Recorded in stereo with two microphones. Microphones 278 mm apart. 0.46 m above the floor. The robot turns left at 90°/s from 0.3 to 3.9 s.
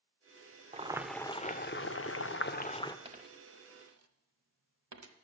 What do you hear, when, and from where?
0.7 s boiling: 145° right, 0.5 m; by 3.0 s 15° left, 0.5 m
3.0 s a dropped coin: 20° right (ahead or behind), 0.8 m; by 5.2 s 85° right, 0.8 m